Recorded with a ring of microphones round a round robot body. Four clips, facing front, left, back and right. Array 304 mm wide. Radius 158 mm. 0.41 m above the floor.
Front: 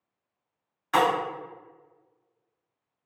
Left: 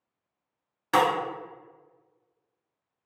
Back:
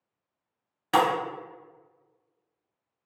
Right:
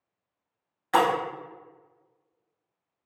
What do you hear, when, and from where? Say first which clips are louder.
0.9 s breaking glass: even, even; 140° left, 0.9 m